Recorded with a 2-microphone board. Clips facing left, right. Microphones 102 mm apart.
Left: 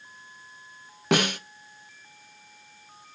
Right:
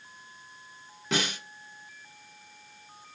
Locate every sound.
1.1 s a snare drum: 65° left (ahead or behind), 0.7 m